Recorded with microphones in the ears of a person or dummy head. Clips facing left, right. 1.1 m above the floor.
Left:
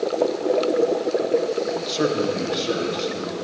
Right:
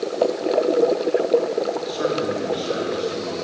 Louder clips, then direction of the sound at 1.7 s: Even; 40° left (ahead or behind).